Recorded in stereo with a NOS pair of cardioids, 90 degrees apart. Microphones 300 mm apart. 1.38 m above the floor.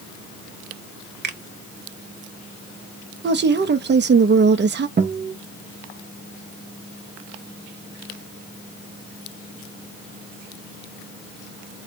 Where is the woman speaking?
35° right, 0.8 m.